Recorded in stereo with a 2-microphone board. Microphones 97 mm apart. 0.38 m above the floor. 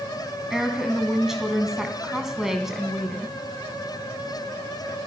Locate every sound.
0.5 s a woman speaking: 5° right (ahead or behind), 3 m